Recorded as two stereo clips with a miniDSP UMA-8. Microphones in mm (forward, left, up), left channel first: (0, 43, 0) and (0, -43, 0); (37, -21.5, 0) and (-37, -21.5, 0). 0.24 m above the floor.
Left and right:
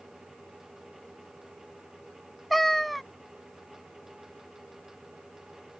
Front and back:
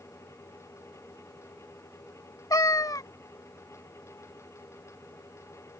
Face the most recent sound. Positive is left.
turn(degrees=0)